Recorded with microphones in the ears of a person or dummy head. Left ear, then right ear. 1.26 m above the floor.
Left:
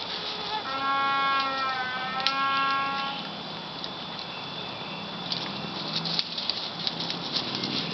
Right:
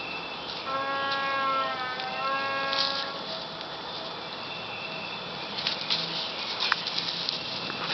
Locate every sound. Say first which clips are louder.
0.6 s a trumpet: left 2 dB; 25° left (ahead or behind), 6.5 m